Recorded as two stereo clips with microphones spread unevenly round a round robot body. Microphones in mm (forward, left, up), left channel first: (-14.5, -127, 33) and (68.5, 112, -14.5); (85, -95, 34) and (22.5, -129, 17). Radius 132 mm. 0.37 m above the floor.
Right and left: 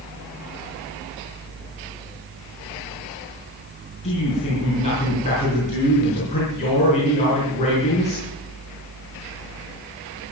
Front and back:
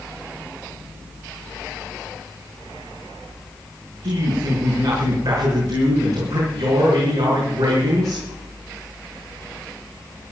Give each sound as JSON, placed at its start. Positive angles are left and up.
{"t": 4.0, "sound": "a man speaking", "azimuth_deg": 180, "distance_m": 5.5}